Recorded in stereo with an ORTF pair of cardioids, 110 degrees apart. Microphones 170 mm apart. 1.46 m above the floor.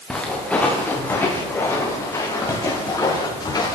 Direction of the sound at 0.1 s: 5° left.